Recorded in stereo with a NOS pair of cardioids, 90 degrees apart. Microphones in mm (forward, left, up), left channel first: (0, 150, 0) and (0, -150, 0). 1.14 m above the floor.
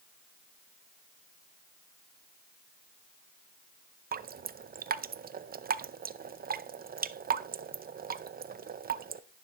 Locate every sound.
4.1 s dripping: 30° right, 0.6 m